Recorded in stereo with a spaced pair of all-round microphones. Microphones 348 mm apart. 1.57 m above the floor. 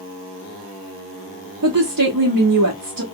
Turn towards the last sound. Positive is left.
turn(degrees=-65)  # may be behind; listen again after turning